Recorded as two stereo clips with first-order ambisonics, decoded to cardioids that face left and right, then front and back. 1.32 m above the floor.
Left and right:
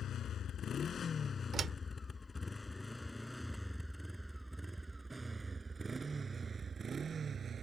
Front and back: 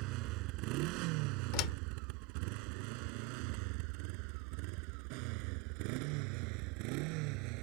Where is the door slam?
25° right.